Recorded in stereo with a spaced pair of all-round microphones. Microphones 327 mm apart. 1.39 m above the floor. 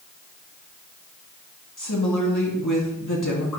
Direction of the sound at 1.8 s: 65° left (ahead or behind).